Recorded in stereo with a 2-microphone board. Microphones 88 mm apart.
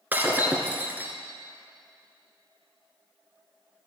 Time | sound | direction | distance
0.1 | breaking glass | 20° right (ahead or behind) | 1.4 m